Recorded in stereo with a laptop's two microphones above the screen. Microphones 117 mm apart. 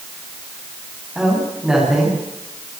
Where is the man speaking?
5° right (ahead or behind), 9.5 m.